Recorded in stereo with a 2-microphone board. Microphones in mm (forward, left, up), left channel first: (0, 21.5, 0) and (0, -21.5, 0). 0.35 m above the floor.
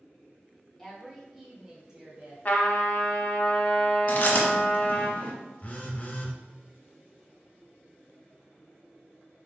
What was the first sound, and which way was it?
A woman speaking, 10° left (ahead or behind).